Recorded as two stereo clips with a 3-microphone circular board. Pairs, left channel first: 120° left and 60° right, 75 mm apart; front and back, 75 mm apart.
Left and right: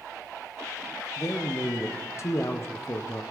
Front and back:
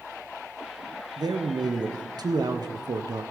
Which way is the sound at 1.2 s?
165° left.